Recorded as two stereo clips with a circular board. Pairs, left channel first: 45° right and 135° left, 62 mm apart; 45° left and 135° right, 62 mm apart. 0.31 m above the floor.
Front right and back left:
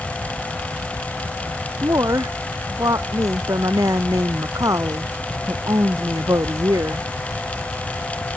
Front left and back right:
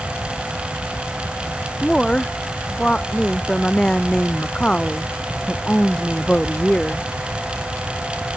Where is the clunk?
No clunk in this recording.